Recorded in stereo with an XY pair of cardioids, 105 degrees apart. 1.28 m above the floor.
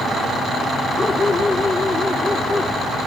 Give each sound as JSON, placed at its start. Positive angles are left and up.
{"t": 1.0, "sound": "a dog barking", "azimuth_deg": 30}